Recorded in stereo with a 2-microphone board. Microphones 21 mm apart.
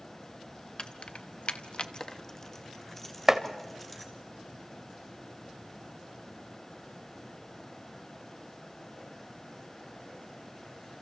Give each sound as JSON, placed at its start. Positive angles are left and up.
{"t": 0.8, "sound": "keys jangling", "side_deg": 40, "distance_m": 0.9}
{"t": 3.3, "sound": "chopping", "side_deg": -15, "distance_m": 1.0}